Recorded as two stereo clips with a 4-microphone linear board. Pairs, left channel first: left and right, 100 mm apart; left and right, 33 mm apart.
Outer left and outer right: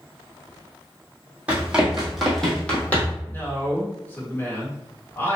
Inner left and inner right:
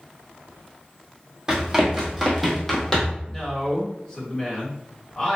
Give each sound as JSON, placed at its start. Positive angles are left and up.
{"t": 1.5, "sound": "running footsteps", "side_deg": -15, "distance_m": 1.8}
{"t": 3.2, "sound": "a man speaking", "side_deg": 20, "distance_m": 2.0}